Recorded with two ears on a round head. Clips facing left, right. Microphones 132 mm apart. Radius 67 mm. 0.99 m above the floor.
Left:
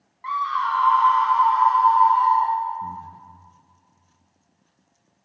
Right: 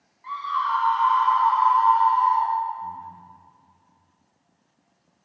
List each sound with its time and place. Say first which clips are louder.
0.2 s a scream: left 2 dB; 70° left (ahead or behind), 1.0 m; by 2.5 s 75° left (ahead or behind), 2.5 m
2.8 s breathing: left 2 dB; 45° left (ahead or behind), 0.9 m